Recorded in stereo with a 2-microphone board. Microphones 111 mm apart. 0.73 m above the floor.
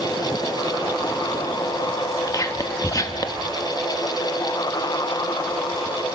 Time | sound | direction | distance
2.3 | whispering | 35° left (ahead or behind) | 1.3 m